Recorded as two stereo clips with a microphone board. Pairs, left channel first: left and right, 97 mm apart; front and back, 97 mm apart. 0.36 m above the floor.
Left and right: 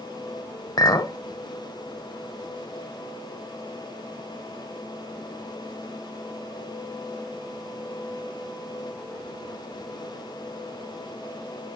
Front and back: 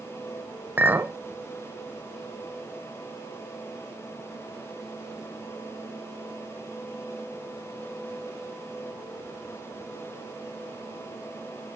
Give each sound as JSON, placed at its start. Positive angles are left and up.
{"t": 0.8, "sound": "a clink", "azimuth_deg": 120, "distance_m": 0.6}